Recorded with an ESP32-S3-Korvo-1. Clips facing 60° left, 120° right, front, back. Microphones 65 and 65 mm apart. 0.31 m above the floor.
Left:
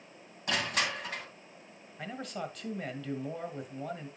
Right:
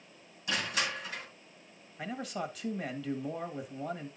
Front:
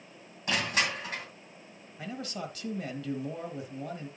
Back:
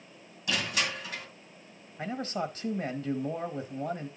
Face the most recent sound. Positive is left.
turn(degrees=155)